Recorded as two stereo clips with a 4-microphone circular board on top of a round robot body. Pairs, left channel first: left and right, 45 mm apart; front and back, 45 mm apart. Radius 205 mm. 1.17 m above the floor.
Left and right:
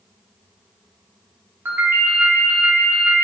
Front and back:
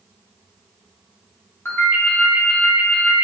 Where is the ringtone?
40° right, 0.5 m.